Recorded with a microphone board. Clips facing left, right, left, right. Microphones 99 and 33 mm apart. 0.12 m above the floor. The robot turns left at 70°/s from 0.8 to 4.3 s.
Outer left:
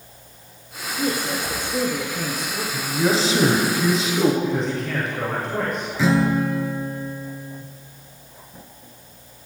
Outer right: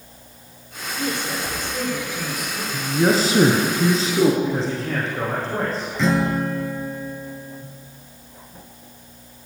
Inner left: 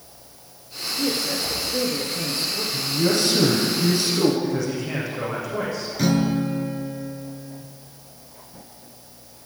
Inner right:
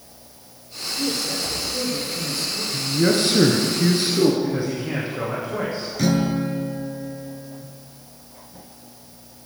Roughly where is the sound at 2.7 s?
Ahead right.